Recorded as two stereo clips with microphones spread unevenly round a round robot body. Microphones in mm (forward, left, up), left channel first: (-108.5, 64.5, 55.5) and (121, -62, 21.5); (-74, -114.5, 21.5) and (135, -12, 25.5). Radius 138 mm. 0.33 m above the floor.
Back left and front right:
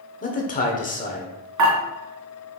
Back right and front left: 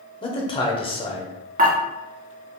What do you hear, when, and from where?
0.2 s a man speaking: straight behind, 1.0 m
1.6 s dishes clattering: 30° right, 2 m